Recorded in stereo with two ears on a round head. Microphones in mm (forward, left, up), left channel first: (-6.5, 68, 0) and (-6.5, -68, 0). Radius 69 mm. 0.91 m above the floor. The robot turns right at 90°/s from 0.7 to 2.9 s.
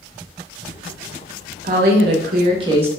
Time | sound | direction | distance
1.6 | a woman speaking | 120° right | 0.8 m